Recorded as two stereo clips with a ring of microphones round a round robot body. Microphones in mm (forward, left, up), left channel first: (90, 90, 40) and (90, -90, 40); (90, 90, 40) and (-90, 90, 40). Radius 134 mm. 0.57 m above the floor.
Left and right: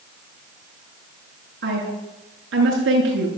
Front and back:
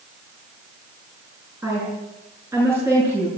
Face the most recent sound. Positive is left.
turn(degrees=-100)